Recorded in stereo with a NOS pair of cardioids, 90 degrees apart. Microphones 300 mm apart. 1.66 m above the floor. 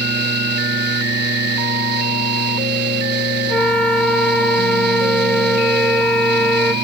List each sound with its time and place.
0.0 s a fan: 35° right
3.5 s a flute: 5° left